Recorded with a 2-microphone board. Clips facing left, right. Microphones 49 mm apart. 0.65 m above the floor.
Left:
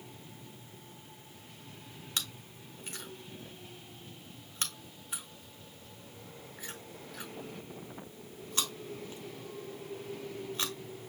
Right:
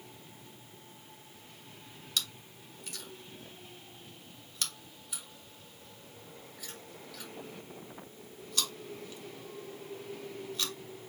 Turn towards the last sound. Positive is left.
turn(degrees=30)  # may be behind; listen again after turning